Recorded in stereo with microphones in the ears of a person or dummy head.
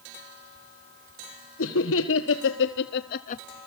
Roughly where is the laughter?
Left.